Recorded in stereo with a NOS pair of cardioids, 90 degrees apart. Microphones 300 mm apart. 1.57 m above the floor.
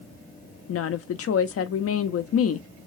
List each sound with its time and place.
0.7 s a woman speaking: 50° left, 0.7 m